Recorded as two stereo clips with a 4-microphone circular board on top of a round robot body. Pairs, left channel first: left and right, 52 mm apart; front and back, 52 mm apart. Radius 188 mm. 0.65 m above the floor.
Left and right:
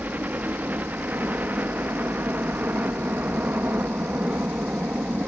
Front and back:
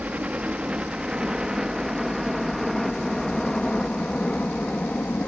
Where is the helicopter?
130° right; by 5.3 s 45° right.